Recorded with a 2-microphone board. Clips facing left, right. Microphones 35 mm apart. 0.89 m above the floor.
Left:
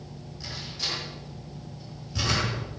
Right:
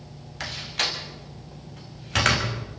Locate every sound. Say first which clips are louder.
0.4 s a door slam: right 7 dB; 70° right (ahead or behind), 5 m